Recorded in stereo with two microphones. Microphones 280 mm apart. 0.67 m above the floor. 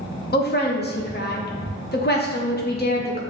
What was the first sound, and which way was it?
A woman speaking, 35° left (ahead or behind).